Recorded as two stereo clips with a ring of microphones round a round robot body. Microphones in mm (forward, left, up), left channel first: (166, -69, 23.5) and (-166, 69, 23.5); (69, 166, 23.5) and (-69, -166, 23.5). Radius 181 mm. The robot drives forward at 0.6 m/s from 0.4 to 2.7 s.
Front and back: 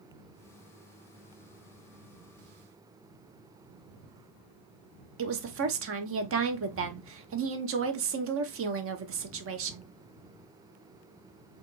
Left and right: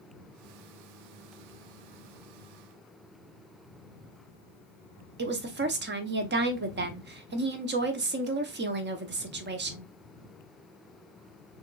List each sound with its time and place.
5.2 s a woman speaking: 165° right, 0.8 m